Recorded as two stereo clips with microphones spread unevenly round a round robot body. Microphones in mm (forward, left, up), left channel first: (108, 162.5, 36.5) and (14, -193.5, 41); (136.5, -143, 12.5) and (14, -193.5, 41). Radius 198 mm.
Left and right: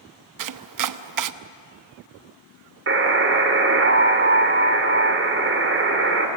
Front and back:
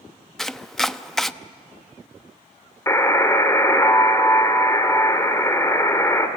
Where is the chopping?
65° right, 0.9 m.